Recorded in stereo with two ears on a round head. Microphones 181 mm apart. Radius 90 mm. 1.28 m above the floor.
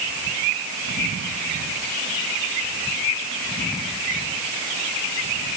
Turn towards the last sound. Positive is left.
No sound to turn to.